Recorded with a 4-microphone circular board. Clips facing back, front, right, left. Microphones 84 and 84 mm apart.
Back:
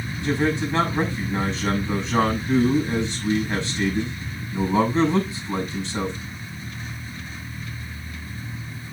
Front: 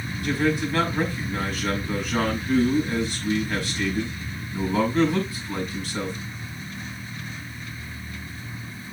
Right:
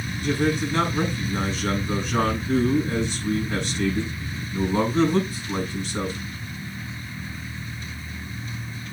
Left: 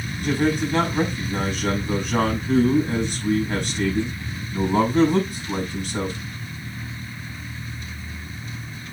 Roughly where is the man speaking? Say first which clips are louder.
Back 1 dB, left 2 dB; behind left.